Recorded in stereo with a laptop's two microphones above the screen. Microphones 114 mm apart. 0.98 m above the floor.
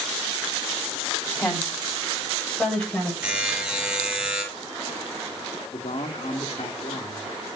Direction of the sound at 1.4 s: Centre (ahead or behind).